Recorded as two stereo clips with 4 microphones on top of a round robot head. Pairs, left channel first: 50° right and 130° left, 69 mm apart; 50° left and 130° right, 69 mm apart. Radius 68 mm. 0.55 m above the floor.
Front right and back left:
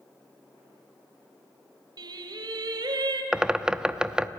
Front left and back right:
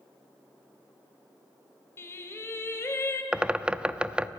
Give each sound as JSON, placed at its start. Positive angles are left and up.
{"t": 2.0, "sound": "singing", "azimuth_deg": 105, "distance_m": 2.5}
{"t": 3.3, "sound": "a bird", "azimuth_deg": -175, "distance_m": 0.8}